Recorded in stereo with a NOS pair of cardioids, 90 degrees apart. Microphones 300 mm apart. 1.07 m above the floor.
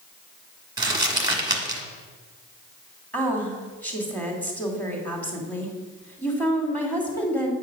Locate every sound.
0.8 s crumpling: 15° right, 1.4 m
3.1 s a woman speaking: 5° left, 2.5 m